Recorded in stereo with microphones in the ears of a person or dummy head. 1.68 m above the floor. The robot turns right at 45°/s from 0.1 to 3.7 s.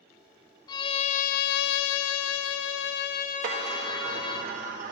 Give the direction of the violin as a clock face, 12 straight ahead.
11 o'clock.